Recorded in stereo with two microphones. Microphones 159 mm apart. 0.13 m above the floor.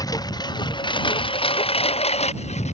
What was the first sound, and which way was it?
A lawn mower, 20° left (ahead or behind).